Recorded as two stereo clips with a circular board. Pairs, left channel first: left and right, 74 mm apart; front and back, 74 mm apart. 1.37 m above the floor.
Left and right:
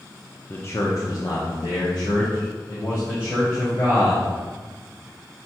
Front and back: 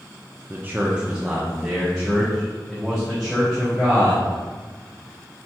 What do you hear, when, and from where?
0.5 s a man speaking: 135° left, 0.5 m; by 4.2 s 75° left, 2 m